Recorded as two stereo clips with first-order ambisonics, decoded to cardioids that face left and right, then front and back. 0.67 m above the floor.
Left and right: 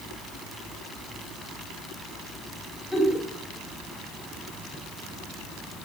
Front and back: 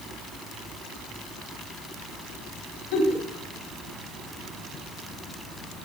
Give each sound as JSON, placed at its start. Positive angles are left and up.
{"t": 2.9, "sound": "a giggle", "azimuth_deg": -5, "distance_m": 4.0}